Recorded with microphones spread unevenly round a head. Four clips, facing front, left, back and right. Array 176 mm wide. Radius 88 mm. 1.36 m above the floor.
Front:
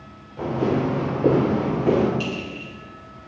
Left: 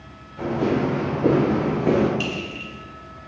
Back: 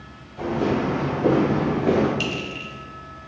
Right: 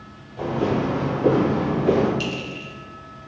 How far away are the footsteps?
About 1.9 m.